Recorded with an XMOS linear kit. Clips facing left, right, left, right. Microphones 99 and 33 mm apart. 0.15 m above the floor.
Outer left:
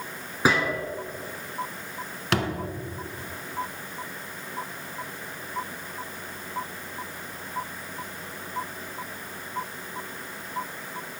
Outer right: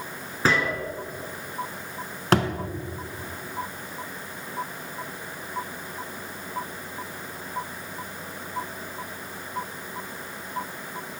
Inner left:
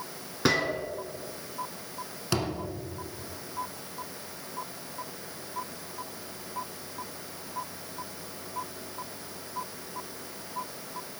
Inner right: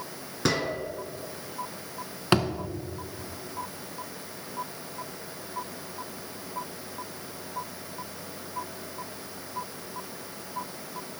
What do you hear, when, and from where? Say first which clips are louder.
0.5 s a gunshot: even, inner left 1 dB; 10° left (ahead or behind), 0.8 m
2.3 s a thud: outer right 5 dB, inner right 6 dB; 40° right (ahead or behind), 0.8 m